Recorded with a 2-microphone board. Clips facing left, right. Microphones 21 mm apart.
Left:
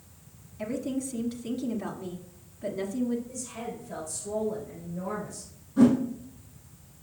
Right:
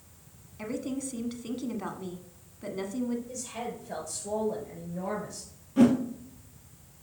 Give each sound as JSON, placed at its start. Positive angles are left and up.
{"t": 0.6, "sound": "a woman speaking", "side_deg": -25, "distance_m": 1.3}
{"t": 3.3, "sound": "a woman speaking", "side_deg": -50, "distance_m": 3.5}
{"t": 5.8, "sound": "a whoosh", "side_deg": -65, "distance_m": 2.5}